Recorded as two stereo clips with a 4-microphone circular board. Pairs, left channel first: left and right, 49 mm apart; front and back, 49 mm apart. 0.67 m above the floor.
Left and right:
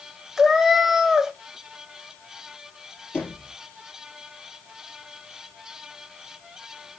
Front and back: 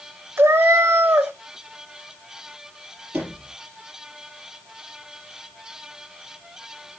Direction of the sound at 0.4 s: 175° right.